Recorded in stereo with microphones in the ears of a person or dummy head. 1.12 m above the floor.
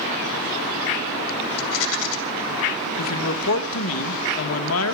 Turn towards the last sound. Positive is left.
turn(degrees=80)